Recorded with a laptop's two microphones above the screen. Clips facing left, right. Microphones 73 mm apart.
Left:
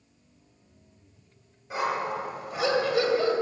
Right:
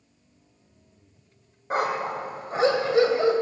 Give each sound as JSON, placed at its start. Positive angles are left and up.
{"t": 1.7, "sound": "a dog barking", "side_deg": -55, "distance_m": 2.0}